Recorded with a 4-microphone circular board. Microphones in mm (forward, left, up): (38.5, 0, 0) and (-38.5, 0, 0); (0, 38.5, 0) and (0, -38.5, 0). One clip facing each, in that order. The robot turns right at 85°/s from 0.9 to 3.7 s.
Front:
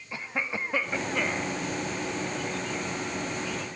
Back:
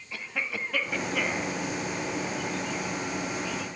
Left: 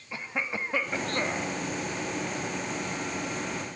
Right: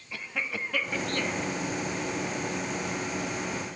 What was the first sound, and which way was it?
A cough, 45° left.